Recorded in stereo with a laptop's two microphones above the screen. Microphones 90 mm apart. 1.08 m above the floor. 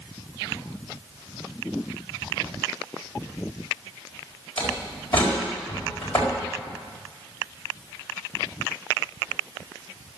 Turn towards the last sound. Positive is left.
turn(degrees=20)  # may be behind; listen again after turning